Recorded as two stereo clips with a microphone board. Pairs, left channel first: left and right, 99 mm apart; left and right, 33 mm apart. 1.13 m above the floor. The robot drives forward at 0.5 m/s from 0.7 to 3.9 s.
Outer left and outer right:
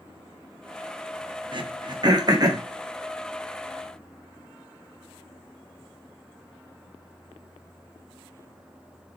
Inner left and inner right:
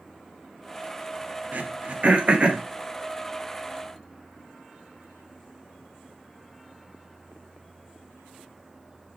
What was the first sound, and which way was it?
Throat clearing, 55° right (ahead or behind).